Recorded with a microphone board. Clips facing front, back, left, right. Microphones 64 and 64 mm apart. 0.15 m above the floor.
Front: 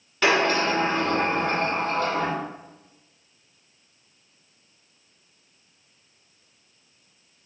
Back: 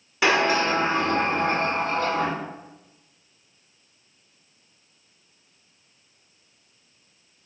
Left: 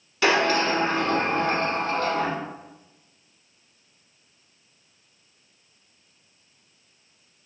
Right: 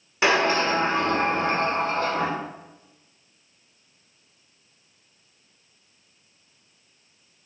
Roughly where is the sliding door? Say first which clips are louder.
Even, even; right.